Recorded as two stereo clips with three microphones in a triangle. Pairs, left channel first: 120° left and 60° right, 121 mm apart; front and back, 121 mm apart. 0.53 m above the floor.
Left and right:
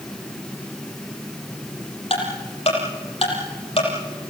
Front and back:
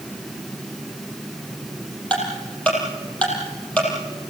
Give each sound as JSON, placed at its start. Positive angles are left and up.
{"t": 2.1, "sound": "ticking", "azimuth_deg": 80, "distance_m": 6.0}